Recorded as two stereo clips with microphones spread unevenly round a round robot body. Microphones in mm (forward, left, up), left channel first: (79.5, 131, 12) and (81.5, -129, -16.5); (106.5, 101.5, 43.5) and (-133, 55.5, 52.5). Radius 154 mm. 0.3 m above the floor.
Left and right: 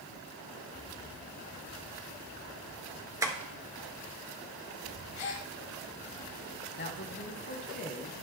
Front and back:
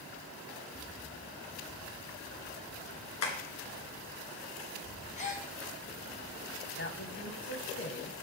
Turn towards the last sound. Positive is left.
turn(degrees=45)